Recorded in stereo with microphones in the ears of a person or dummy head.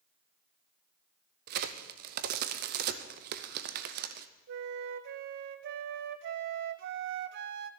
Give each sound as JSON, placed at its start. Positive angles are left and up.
{"t": 1.5, "sound": "a crack", "side_deg": -60, "distance_m": 0.8}
{"t": 4.5, "sound": "a flute", "side_deg": -60, "distance_m": 0.6}